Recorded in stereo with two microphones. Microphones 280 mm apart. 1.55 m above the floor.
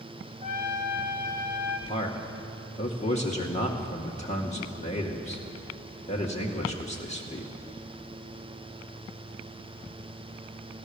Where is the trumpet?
30° right (ahead or behind), 1.9 m.